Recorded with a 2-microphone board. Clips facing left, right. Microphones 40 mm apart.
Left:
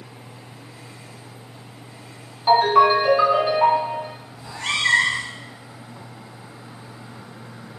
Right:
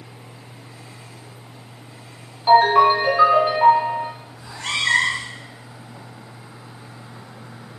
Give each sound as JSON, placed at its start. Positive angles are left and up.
{"t": 2.5, "sound": "a ringtone", "side_deg": -5, "distance_m": 1.6}
{"t": 4.4, "sound": "a cat meowing", "side_deg": 10, "distance_m": 1.6}